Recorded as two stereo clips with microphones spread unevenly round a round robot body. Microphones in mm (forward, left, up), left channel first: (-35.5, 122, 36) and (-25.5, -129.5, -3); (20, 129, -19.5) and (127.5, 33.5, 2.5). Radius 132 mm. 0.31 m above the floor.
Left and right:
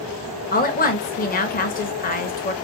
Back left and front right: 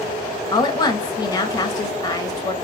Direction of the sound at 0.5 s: 135° left.